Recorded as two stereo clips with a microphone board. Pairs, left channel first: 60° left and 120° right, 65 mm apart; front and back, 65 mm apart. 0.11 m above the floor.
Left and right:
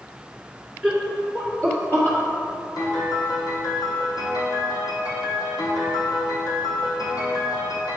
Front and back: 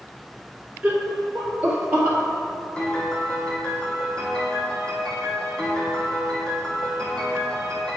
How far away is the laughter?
About 1.4 m.